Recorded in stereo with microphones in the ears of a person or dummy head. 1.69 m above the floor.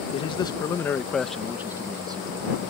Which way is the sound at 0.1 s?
25° left (ahead or behind).